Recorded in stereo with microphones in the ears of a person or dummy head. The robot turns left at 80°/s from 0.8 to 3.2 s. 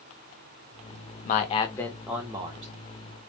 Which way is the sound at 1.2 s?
65° left.